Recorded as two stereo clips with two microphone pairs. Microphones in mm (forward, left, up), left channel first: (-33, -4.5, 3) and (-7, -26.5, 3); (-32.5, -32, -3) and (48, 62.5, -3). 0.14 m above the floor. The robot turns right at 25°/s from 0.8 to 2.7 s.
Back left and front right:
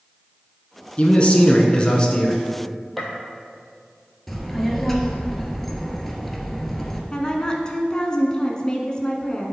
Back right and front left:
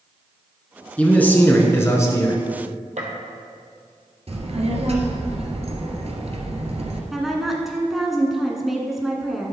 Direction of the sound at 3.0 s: 55° left.